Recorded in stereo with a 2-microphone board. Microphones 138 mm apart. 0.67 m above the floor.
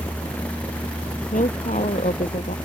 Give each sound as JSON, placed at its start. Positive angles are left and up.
{"t": 1.3, "sound": "a woman speaking", "side_deg": 65}